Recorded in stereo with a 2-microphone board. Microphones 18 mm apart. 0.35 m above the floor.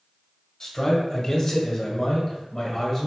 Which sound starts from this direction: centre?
A man speaking, at 0.6 s.